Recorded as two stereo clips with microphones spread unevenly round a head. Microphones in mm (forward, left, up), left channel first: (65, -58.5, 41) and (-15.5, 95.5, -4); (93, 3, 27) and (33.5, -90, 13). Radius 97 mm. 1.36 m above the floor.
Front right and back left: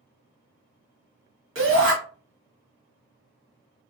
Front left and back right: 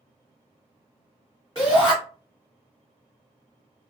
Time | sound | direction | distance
1.6 | a shout | 130° left | 1.6 m